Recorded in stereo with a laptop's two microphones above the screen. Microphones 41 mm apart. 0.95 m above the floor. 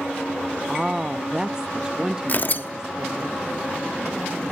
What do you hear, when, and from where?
0.7 s a woman speaking: 15° right (ahead or behind), 0.8 m
2.3 s tearing paper: 45° left (ahead or behind), 0.8 m